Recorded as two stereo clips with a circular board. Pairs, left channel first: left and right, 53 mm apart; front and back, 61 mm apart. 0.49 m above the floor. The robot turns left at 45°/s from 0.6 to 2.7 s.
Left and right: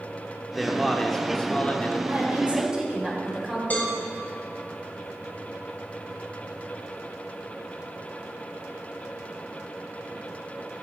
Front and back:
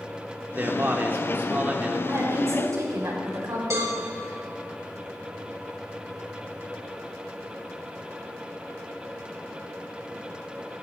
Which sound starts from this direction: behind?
A man speaking, at 0.5 s.